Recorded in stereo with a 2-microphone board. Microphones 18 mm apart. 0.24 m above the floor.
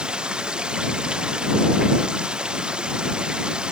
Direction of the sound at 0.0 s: 55° right (ahead or behind).